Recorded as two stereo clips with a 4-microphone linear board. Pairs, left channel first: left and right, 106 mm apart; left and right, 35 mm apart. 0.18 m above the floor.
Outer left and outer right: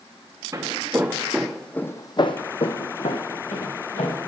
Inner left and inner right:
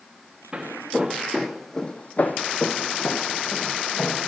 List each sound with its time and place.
0.5 s footsteps: 30° right (ahead or behind), 1.2 m; by 4.3 s 75° left (ahead or behind), 1.6 m